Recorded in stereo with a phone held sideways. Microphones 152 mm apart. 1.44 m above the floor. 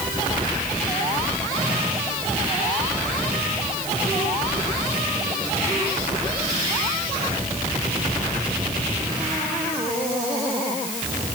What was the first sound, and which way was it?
Only background noise.